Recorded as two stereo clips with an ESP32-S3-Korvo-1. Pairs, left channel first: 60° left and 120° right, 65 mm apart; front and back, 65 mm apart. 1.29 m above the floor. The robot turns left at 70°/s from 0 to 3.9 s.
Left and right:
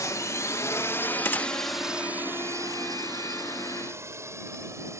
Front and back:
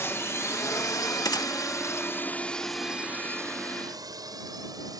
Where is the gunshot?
10° left; by 1.5 s 10° right.